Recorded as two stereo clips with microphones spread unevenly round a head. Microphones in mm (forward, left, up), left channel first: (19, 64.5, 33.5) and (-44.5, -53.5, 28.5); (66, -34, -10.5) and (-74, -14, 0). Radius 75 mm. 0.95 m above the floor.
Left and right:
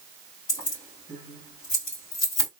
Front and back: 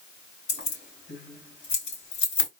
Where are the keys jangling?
5° left, 2.5 m.